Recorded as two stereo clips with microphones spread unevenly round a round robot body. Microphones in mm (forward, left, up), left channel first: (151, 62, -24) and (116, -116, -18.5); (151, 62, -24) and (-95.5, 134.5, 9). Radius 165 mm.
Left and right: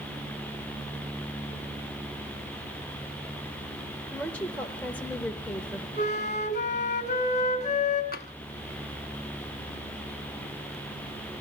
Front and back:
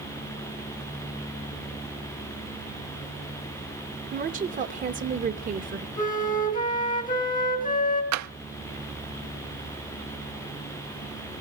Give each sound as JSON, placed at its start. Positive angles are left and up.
{"t": 4.1, "sound": "a woman speaking", "azimuth_deg": 145, "distance_m": 0.8}
{"t": 6.0, "sound": "a flute", "azimuth_deg": 35, "distance_m": 3.5}
{"t": 8.1, "sound": "tapping", "azimuth_deg": 140, "distance_m": 0.7}